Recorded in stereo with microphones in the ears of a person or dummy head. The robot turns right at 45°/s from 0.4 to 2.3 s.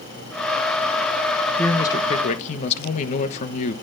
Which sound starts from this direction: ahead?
A man speaking, at 1.6 s.